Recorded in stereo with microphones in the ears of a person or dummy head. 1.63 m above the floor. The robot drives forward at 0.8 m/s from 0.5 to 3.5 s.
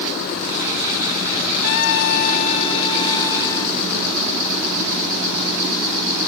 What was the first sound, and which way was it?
A trumpet, 50° left (ahead or behind).